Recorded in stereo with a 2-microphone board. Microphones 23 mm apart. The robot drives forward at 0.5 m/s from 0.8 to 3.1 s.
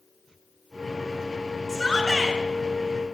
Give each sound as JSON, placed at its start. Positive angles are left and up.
{"t": 1.7, "sound": "a shout", "side_deg": 25, "distance_m": 2.5}